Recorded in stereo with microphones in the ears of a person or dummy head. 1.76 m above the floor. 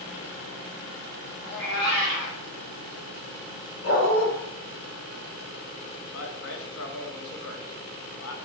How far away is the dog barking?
About 2.5 m.